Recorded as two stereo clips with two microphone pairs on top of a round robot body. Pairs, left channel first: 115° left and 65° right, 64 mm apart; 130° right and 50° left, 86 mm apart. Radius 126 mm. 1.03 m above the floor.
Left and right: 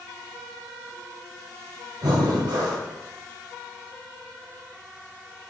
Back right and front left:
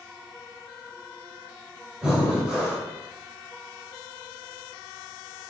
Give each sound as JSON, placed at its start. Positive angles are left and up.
{"t": 2.0, "sound": "breathing", "azimuth_deg": -30, "distance_m": 1.8}